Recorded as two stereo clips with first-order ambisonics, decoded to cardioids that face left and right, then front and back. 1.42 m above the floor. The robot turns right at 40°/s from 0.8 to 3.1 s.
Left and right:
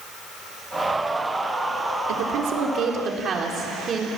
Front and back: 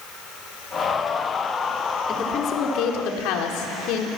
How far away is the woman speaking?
About 3.5 m.